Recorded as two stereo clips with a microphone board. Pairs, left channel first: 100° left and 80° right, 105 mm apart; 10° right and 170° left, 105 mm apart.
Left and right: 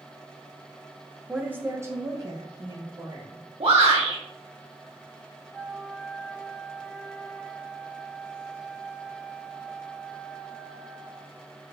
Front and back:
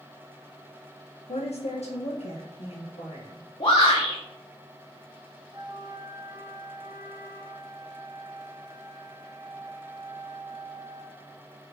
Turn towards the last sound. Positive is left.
turn(degrees=-170)